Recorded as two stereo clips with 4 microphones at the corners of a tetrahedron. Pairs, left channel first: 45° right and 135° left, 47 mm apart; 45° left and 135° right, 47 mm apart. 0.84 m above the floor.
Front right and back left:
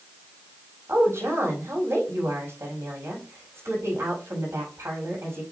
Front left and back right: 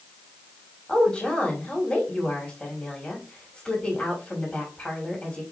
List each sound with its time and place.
0.9 s a woman speaking: 110° left, 5.5 m